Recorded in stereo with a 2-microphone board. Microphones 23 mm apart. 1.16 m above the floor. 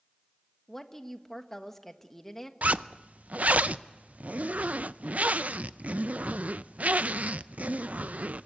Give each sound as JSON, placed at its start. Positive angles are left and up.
{"t": 0.7, "sound": "a woman speaking", "side_deg": 20, "distance_m": 1.5}
{"t": 2.6, "sound": "a zipper", "side_deg": -85, "distance_m": 0.5}